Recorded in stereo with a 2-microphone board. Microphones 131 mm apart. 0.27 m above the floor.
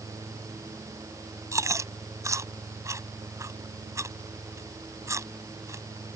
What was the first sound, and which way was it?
Chewing, 25° right (ahead or behind).